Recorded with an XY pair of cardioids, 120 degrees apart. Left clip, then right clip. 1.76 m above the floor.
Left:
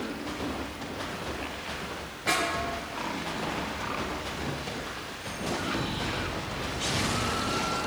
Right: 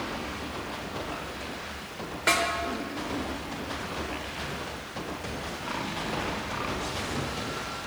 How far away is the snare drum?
About 2.5 m.